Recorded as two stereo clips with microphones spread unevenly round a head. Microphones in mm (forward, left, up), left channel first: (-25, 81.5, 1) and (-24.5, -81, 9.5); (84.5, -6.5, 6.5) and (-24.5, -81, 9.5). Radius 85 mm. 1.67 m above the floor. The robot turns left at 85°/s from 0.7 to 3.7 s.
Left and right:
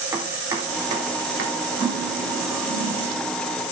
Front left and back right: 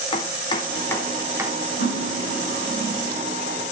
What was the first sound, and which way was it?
Chopping, 20° right.